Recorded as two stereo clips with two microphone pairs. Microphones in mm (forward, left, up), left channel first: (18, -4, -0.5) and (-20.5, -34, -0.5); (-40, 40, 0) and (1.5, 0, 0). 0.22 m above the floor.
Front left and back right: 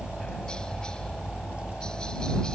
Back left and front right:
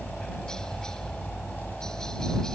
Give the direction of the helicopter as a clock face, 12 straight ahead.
9 o'clock.